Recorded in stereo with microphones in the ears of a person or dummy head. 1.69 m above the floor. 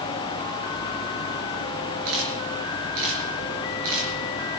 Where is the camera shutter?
70° right (ahead or behind), 4 m.